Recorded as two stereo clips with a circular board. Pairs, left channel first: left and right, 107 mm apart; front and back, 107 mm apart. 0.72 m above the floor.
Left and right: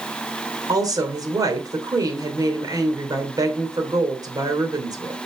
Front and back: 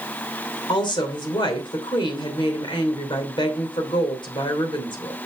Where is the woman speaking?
40° right, 3 m.